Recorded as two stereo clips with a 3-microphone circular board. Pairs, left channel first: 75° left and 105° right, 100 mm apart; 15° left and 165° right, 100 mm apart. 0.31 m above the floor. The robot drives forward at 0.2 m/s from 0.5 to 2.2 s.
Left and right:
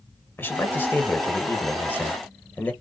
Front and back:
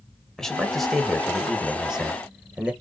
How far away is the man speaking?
About 1.4 m.